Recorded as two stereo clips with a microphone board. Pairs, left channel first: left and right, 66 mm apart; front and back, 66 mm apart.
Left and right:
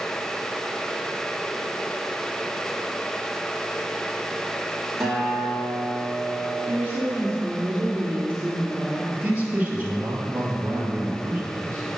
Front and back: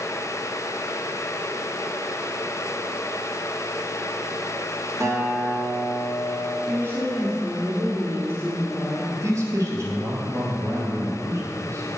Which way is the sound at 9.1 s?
155° right.